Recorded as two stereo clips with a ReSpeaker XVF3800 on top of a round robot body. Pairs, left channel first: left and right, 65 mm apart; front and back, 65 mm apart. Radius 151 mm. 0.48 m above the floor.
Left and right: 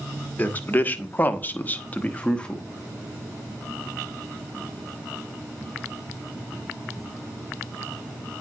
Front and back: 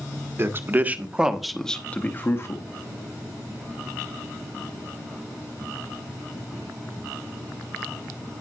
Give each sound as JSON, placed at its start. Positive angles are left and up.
{"t": 0.4, "sound": "a man speaking", "azimuth_deg": 145, "distance_m": 1.7}